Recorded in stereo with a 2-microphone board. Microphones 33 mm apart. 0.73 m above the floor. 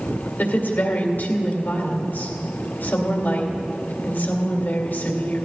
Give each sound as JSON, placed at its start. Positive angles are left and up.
{"t": 0.4, "sound": "a woman speaking", "side_deg": 75, "distance_m": 2.5}